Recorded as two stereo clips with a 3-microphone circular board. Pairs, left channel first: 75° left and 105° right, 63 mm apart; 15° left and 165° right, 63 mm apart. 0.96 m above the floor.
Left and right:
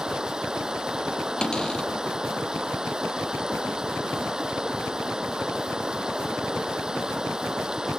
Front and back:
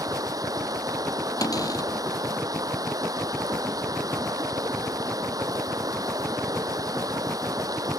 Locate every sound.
0.0 s running water: 175° left
1.4 s a cupboard door: straight ahead